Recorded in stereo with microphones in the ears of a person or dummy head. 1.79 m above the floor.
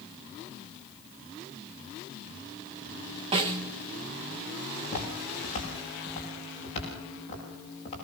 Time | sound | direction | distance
3.3 | a snare drum | 20° right (ahead or behind) | 0.7 m
4.8 | footsteps | 35° left (ahead or behind) | 8.5 m